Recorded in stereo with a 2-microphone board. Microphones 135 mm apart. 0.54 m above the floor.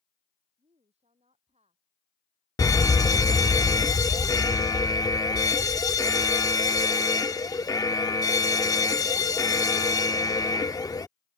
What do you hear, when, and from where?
0.6 s a woman speaking: 50° right (ahead or behind)
2.6 s an alarm: 25° left (ahead or behind)